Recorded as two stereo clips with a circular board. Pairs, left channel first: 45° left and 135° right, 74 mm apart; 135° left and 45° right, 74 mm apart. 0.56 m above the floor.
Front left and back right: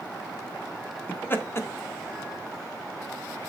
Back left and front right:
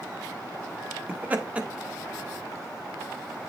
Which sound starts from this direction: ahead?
Laughter, at 1.1 s.